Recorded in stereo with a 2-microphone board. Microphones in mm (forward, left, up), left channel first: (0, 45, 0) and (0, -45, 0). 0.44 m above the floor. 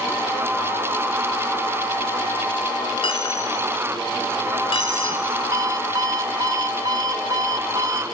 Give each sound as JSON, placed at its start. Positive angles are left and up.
{"t": 3.0, "sound": "a dropped coin", "side_deg": 80, "distance_m": 1.6}
{"t": 5.5, "sound": "an alarm clock", "side_deg": -45, "distance_m": 1.0}